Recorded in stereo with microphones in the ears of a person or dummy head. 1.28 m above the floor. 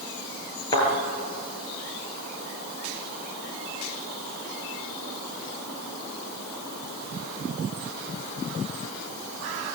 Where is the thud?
25° left (ahead or behind), 8 m.